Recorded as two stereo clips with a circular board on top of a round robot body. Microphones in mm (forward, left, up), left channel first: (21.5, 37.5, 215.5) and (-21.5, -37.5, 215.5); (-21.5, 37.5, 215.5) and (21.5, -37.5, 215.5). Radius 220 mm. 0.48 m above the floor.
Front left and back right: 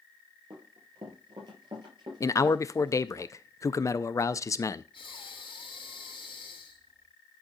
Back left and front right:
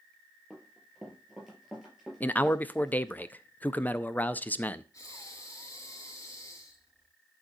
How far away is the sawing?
No sawing in this recording.